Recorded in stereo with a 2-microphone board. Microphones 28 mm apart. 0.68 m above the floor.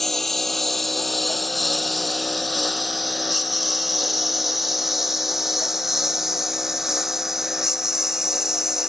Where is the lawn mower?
5° left (ahead or behind); by 8.9 s 20° right (ahead or behind).